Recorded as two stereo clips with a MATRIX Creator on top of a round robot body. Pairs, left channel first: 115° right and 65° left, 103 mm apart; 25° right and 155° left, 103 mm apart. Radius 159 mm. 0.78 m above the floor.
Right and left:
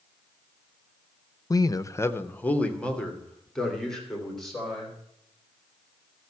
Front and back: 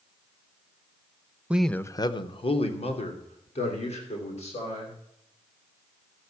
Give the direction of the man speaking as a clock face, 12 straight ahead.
4 o'clock.